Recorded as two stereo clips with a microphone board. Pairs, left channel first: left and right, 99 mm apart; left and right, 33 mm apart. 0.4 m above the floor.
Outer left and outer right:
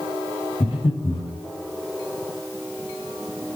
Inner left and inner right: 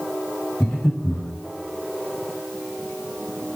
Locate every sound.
0.6 s breathing: 85° left, 5.5 m